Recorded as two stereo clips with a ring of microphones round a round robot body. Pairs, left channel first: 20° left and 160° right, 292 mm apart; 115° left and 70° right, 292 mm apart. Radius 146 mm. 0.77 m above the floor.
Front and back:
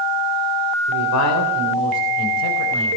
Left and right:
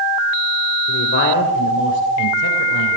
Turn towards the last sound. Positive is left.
turn(degrees=70)